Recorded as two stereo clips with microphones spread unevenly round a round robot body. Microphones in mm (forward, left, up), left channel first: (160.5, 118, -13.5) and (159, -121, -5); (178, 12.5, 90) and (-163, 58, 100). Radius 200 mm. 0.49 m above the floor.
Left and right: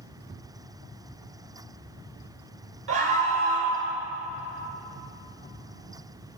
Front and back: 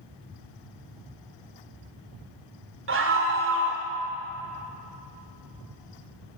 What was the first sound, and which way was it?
A scream, 135° right.